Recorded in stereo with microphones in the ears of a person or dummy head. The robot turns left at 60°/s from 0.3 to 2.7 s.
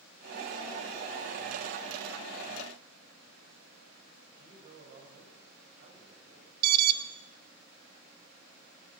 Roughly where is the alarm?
Right.